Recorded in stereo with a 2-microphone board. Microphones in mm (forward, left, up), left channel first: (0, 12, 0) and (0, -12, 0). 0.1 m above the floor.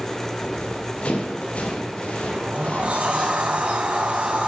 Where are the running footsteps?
80° left, 2.5 m.